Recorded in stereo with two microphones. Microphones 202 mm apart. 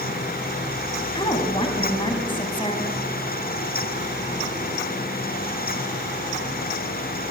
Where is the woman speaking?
25° left (ahead or behind), 3 m.